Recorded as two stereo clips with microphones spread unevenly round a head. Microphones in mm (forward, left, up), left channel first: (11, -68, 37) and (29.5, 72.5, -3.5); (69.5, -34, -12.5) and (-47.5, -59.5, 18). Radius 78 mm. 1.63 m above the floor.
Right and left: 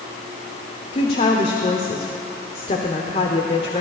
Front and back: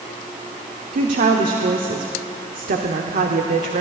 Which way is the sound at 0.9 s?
155° right.